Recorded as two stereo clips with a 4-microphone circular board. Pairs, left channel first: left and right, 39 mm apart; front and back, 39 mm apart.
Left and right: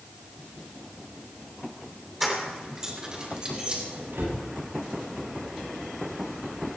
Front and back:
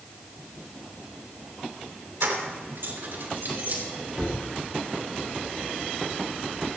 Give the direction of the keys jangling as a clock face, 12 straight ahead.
6 o'clock.